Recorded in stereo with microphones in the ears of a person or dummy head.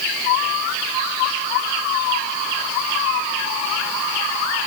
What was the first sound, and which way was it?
Only background noise.